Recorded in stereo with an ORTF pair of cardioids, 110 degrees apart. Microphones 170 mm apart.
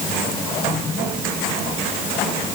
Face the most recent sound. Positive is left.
No sound to turn to.